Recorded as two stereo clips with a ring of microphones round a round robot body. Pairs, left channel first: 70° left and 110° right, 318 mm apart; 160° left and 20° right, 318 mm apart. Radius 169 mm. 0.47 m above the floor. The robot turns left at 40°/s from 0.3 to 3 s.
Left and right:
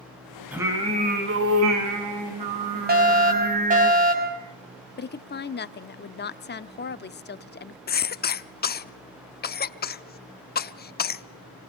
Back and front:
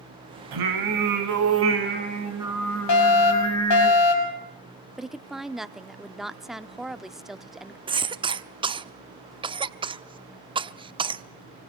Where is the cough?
40° left, 0.9 m.